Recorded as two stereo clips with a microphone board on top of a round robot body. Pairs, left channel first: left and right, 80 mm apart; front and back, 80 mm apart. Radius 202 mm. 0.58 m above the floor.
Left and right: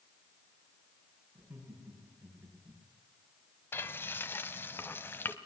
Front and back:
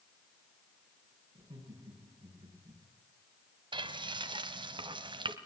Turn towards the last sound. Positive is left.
turn(degrees=155)